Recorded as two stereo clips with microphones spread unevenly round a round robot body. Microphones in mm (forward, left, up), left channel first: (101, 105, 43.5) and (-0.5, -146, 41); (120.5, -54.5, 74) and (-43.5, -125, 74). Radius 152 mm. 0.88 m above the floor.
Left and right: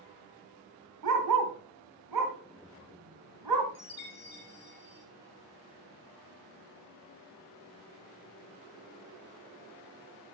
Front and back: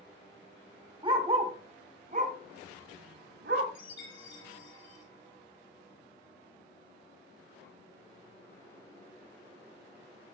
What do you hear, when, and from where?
1.0 s a dog barking: 95° right, 2 m; by 3.6 s 135° right, 2 m
3.8 s a chime: 15° left, 2.5 m